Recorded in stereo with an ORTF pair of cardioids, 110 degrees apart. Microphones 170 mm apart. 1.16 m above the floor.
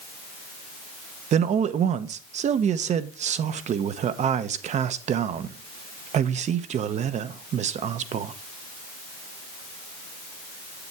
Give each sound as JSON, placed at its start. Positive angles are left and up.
{"t": 1.3, "sound": "a man speaking", "azimuth_deg": -50, "distance_m": 0.7}